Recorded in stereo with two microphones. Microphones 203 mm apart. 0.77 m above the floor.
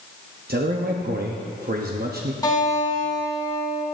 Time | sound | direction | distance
0.5 | a man speaking | 50° right (ahead or behind) | 0.8 m
2.4 | a guitar | 15° left (ahead or behind) | 3.5 m